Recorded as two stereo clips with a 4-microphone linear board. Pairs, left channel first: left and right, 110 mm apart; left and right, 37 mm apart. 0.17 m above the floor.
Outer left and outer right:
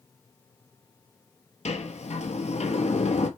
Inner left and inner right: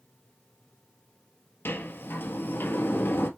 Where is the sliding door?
75° left (ahead or behind), 1.2 m.